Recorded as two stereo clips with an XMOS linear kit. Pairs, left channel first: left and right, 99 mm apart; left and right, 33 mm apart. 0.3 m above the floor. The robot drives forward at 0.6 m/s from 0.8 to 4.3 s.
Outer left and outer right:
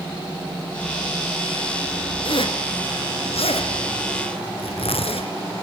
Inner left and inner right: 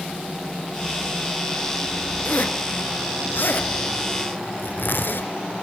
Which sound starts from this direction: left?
A zipper, at 2.2 s.